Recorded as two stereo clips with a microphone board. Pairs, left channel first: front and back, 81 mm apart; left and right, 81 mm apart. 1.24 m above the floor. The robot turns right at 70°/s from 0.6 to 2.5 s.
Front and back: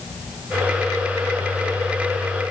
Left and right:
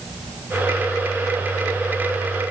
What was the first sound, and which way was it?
Only background noise.